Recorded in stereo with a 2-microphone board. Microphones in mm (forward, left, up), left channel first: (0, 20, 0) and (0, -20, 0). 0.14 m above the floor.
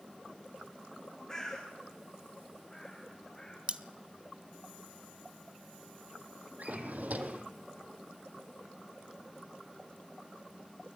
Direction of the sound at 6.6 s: 45° right (ahead or behind).